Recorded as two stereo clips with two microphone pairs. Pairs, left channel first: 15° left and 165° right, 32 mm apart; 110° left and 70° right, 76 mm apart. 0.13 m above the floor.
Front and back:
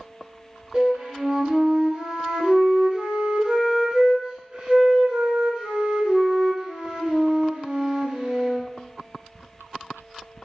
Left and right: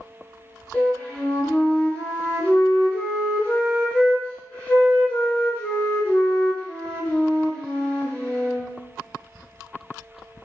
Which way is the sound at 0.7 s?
155° left.